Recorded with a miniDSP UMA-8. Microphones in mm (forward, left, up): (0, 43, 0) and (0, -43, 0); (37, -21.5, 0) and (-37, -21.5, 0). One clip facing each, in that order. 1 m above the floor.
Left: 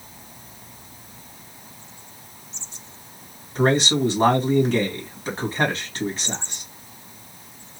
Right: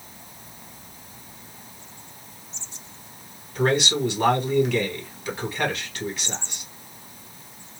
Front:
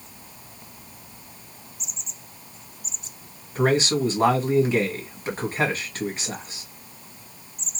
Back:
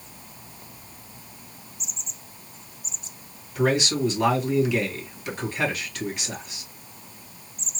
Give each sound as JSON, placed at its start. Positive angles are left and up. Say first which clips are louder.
{"t": 3.5, "sound": "a man speaking", "louder": "left 3 dB, front 2 dB", "azimuth_deg": 45, "distance_m": 1.3}